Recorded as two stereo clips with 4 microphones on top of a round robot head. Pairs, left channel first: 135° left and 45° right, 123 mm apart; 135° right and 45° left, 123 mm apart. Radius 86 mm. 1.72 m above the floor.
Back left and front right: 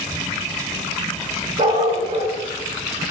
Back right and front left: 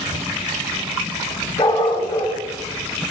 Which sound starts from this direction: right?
A dog barking, at 1.6 s.